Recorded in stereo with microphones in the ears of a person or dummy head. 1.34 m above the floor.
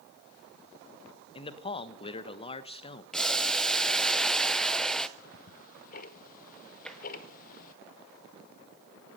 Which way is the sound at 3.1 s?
Centre (ahead or behind).